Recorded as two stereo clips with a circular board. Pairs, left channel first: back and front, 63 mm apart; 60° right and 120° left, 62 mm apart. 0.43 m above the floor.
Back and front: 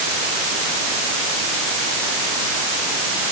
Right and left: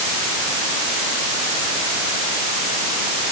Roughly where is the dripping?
No dripping in this recording.